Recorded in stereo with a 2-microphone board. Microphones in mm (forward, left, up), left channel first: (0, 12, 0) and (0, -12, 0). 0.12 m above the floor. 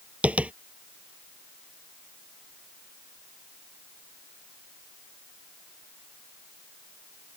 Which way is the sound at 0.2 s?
65° right (ahead or behind).